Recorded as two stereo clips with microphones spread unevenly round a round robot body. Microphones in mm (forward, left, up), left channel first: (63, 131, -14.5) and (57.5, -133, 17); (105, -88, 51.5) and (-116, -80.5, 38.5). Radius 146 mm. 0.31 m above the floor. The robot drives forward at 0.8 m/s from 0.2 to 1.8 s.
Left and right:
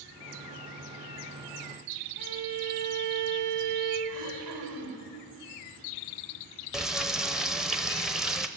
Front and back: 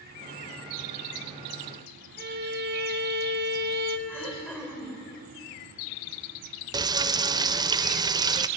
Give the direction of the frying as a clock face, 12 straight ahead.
6 o'clock.